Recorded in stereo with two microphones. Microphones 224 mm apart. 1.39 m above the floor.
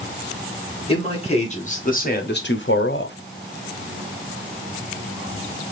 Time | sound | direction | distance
0.9 | a man speaking | 25° left (ahead or behind) | 2 m